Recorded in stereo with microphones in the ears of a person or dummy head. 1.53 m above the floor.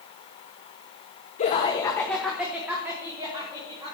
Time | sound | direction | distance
1.4 | laughter | 40° left (ahead or behind) | 0.9 m